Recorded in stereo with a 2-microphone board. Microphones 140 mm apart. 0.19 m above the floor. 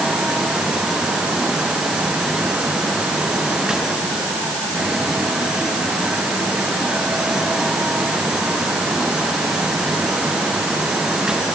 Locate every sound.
Only background noise.